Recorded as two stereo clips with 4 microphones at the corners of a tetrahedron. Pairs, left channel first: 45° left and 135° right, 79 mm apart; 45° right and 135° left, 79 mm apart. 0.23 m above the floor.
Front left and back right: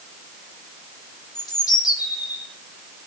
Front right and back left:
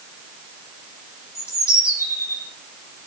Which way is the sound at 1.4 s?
10° left.